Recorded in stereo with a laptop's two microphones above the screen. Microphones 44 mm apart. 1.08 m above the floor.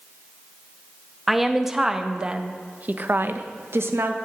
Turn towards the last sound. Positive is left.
turn(degrees=-70)  # may be behind; listen again after turning